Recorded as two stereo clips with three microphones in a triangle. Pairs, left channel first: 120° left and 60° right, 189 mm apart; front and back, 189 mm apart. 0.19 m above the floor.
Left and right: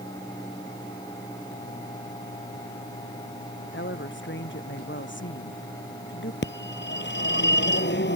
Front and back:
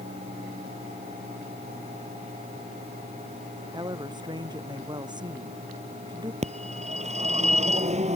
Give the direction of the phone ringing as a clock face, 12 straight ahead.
8 o'clock.